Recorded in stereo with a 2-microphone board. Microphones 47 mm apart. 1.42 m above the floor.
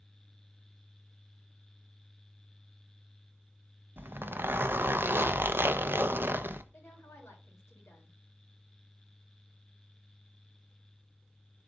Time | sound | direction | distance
4.0 | a zipper | 55° right (ahead or behind) | 0.7 m
6.7 | a woman speaking | 75° left (ahead or behind) | 3.5 m